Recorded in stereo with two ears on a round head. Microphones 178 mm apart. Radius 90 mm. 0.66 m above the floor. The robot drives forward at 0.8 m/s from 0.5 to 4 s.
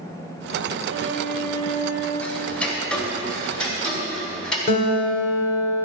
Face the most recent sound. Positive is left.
turn(degrees=40)  # may be behind; listen again after turning